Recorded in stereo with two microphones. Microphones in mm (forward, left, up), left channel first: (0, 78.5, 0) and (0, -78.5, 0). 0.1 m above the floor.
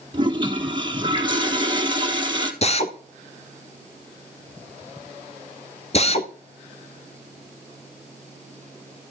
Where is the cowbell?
I don't hear a cowbell.